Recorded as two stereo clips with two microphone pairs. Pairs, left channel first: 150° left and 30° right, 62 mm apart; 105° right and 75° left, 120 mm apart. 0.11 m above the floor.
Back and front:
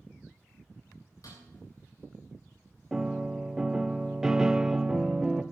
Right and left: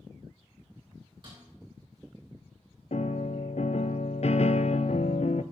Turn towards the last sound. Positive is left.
turn(degrees=-110)